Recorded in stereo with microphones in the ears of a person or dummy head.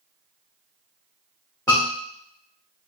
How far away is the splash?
I don't hear a splash.